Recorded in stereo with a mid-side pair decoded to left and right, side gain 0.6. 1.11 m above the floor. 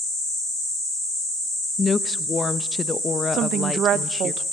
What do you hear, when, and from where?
1.8 s a woman speaking: 25° left, 0.7 m
3.3 s a woman speaking: 55° right, 0.8 m